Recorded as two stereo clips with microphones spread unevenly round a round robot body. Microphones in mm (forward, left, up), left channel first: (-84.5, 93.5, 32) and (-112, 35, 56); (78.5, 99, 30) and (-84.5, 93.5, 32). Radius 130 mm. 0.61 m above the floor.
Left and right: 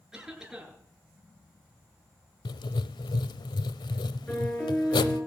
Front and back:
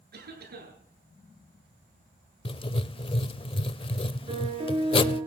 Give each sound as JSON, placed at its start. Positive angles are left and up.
{"t": 0.1, "sound": "a cough", "azimuth_deg": 165, "distance_m": 9.0}
{"t": 2.5, "sound": "writing", "azimuth_deg": 60, "distance_m": 0.6}
{"t": 4.3, "sound": "a piano", "azimuth_deg": 130, "distance_m": 8.5}